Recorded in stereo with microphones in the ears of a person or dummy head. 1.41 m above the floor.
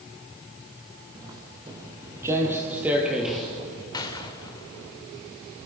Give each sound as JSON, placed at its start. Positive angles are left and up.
{"t": 1.1, "sound": "footsteps", "side_deg": -20, "distance_m": 3.5}
{"t": 3.9, "sound": "a gunshot", "side_deg": 25, "distance_m": 1.9}